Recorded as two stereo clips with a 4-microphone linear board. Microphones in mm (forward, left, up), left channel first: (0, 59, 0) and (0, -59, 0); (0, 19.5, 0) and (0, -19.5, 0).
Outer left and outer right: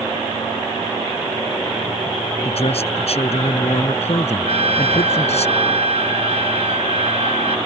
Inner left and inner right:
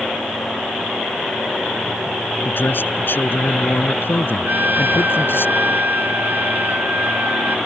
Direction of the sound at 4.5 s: 60° right (ahead or behind).